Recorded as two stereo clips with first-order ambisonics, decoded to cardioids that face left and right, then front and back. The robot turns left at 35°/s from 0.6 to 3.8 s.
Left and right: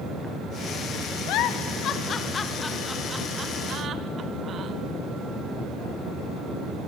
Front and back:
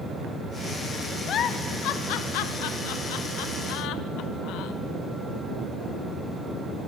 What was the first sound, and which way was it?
A giggle, 55° left.